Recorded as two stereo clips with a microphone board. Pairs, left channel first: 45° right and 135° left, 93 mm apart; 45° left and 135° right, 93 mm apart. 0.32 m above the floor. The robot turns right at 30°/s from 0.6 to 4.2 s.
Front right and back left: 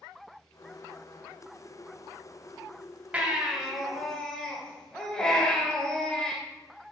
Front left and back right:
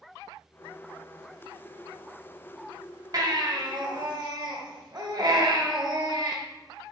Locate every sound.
3.1 s a baby crying: 155° right, 1.6 m; by 6.4 s 125° right, 1.6 m